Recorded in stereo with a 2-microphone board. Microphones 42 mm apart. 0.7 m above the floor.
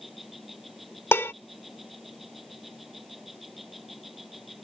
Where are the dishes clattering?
75° left (ahead or behind).